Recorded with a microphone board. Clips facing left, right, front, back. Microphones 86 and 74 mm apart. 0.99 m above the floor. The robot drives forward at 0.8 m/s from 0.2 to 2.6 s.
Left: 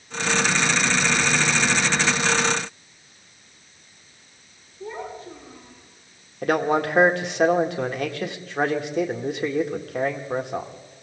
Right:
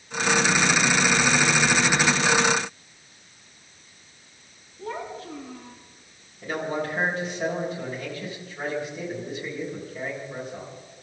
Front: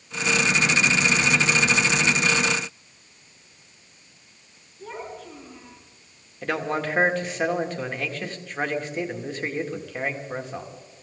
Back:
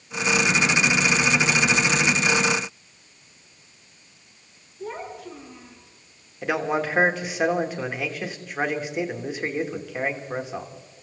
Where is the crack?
I don't hear a crack.